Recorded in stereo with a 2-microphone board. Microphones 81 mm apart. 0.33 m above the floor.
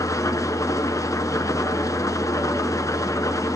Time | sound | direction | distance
0.0 | an engine running | 45° left (ahead or behind) | 1.3 m